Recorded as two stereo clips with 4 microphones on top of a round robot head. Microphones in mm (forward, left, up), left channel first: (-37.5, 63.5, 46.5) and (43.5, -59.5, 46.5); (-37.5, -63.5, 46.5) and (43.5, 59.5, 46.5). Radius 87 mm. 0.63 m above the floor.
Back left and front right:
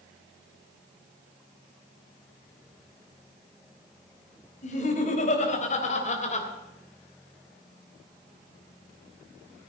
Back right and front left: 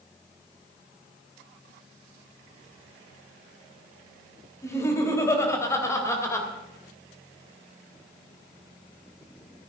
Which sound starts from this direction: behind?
Laughter, at 4.6 s.